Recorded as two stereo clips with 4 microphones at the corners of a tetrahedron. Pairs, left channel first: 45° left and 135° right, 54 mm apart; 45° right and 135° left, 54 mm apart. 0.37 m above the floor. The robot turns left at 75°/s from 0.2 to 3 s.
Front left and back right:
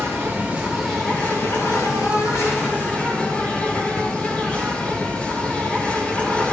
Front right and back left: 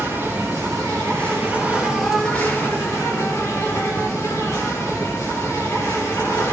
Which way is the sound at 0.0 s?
175° right.